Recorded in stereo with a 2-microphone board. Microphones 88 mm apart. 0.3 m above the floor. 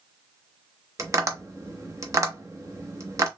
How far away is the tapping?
About 0.8 m.